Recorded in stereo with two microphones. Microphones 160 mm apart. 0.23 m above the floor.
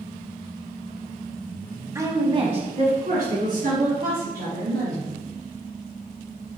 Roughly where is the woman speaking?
Centre.